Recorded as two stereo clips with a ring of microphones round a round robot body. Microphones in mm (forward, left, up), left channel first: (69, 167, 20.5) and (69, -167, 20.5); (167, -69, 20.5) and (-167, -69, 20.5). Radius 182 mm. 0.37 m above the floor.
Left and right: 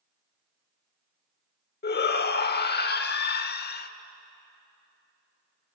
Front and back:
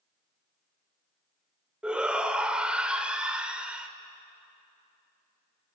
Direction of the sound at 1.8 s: 95° left.